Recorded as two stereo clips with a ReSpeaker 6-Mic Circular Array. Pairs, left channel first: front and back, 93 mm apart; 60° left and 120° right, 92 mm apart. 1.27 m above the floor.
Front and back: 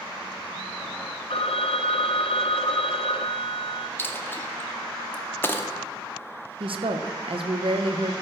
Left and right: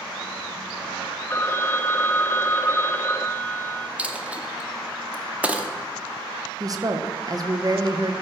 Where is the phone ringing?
5° right, 0.6 m.